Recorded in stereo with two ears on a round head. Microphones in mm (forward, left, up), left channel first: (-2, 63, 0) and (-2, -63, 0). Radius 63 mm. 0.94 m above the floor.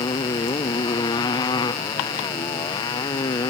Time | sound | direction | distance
0.0 | a motorcycle | 30° left (ahead or behind) | ?